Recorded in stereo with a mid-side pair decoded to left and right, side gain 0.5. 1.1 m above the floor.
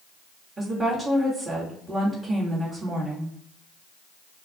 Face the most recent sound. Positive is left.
turn(degrees=-15)